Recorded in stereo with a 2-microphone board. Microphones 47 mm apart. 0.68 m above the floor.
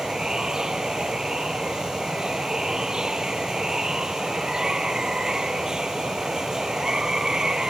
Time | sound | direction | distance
0.0 | running water | 10° right (ahead or behind) | ?